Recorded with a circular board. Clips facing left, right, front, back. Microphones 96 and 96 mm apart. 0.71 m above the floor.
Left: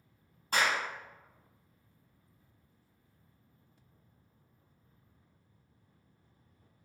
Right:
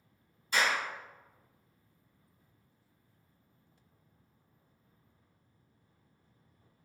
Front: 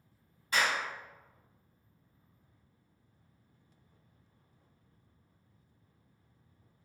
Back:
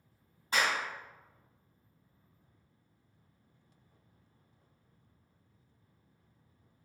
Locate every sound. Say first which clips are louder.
0.5 s a clap: even, even; 120° left, 1.6 m